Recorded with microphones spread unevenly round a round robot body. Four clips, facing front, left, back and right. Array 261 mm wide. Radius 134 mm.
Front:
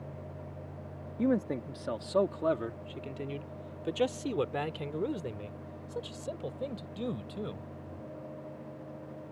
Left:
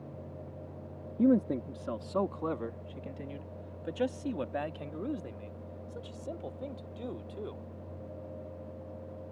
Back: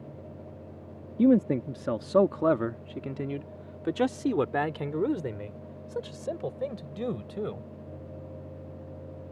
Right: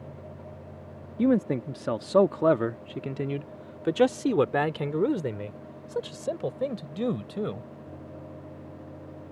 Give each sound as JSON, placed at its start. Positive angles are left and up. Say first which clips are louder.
{"t": 1.2, "sound": "a man speaking", "louder": "right 3 dB, back 8 dB", "azimuth_deg": 175}